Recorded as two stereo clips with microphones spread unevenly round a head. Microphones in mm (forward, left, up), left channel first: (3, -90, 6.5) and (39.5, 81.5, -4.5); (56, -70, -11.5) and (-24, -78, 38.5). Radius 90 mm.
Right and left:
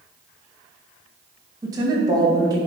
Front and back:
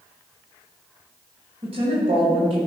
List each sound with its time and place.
1.6 s a woman speaking: 150° left, 2 m